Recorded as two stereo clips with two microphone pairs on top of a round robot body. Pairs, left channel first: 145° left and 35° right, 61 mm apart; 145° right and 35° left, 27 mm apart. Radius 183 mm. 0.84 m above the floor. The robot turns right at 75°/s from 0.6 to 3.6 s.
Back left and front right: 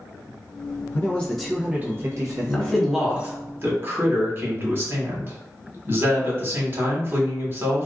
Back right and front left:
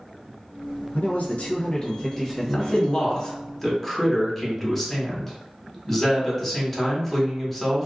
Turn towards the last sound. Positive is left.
turn(degrees=-75)